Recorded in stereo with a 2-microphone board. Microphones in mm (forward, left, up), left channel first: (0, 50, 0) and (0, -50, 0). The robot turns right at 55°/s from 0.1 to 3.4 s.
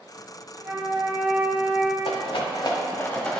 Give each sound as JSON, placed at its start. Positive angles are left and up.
{"t": 0.6, "sound": "a flute", "azimuth_deg": -70, "distance_m": 1.2}
{"t": 2.0, "sound": "a rattle", "side_deg": 80, "distance_m": 1.0}